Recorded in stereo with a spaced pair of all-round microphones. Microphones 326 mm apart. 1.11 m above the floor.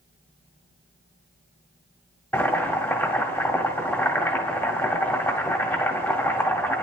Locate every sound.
2.3 s boiling: 5° left (ahead or behind), 1.9 m